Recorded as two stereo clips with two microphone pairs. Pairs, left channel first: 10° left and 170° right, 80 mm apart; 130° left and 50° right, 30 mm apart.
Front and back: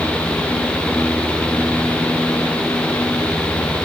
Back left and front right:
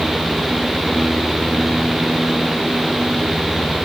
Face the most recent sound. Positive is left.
No sound to turn to.